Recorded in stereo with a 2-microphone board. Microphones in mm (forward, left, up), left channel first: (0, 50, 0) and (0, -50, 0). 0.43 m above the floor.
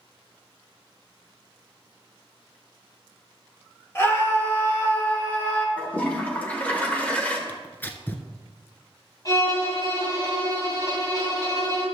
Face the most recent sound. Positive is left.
turn(degrees=40)  # may be behind; listen again after turning